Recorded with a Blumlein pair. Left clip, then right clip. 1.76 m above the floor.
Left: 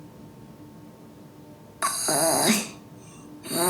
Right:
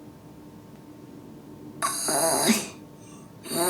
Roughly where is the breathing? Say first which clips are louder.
Left 1 dB; ahead.